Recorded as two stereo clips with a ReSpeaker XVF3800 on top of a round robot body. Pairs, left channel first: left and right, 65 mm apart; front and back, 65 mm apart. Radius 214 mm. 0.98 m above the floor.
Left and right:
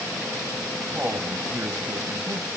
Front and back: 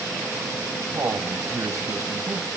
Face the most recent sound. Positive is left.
turn(degrees=-140)